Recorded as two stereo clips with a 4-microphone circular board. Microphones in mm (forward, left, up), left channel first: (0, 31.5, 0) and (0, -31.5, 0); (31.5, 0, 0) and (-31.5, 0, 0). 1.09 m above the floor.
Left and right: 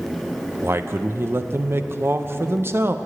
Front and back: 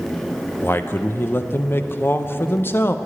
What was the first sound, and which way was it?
A man speaking, 45° right.